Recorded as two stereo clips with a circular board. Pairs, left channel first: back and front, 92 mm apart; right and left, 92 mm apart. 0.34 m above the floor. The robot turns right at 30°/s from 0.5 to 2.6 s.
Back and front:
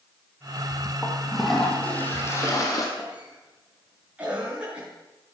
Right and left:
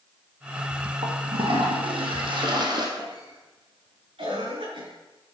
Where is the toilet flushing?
80° left, 4.5 m; by 2.9 s 125° left, 4.5 m.